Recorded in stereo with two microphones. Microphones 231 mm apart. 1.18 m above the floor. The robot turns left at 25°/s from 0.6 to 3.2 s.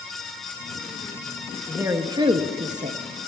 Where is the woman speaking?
10° right, 0.6 m; by 3.0 s 45° right, 0.6 m.